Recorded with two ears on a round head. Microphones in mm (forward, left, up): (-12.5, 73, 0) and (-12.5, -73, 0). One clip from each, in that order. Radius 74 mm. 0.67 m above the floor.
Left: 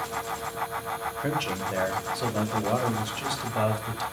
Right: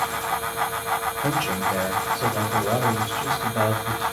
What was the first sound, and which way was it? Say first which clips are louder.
A man speaking: right 5 dB; 10° left (ahead or behind).